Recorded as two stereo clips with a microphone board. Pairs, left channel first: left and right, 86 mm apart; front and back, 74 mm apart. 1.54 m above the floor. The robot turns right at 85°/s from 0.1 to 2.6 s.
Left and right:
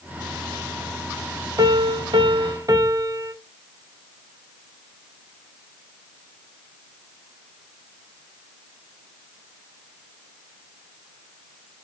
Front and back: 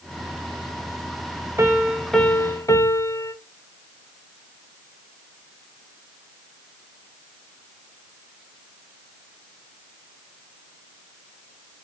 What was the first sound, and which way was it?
A piano, 130° right.